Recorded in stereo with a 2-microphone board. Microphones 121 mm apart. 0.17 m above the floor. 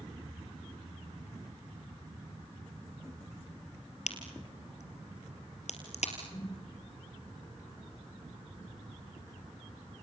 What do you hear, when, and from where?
4.1 s a crack: 70° left (ahead or behind), 3.5 m
6.3 s a whoosh: 55° left (ahead or behind), 3.5 m